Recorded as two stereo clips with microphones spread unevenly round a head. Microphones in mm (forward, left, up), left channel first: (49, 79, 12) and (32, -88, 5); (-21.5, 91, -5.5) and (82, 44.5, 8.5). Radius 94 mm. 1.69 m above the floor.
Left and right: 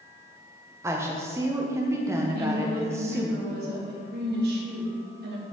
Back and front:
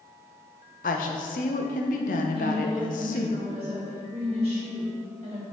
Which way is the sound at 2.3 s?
75° right.